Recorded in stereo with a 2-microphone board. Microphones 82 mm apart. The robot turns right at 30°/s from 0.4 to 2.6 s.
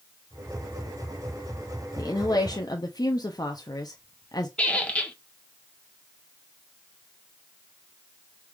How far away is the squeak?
About 0.7 m.